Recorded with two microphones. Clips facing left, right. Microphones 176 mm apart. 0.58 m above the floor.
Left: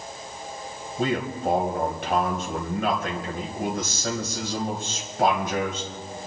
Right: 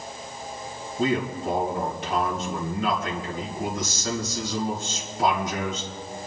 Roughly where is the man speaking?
Left.